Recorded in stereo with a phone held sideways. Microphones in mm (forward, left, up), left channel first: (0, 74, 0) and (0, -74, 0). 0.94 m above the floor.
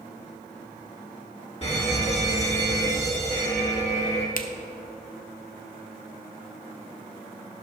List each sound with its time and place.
1.6 s an alarm: 40° left (ahead or behind), 2 m
4.4 s a finger snap: 65° left (ahead or behind), 0.7 m